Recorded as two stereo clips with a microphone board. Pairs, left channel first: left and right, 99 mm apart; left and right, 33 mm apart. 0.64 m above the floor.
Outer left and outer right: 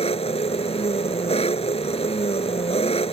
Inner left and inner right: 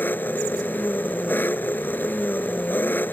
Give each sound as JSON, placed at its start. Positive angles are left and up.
{"t": 0.0, "sound": "an engine running", "side_deg": 85}